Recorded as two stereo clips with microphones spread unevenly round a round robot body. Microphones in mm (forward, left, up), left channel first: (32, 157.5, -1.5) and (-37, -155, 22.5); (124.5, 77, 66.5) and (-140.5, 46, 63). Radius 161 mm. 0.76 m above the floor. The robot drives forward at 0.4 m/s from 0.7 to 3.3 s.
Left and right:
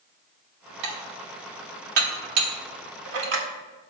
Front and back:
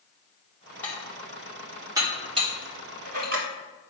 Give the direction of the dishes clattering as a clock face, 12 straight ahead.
3 o'clock.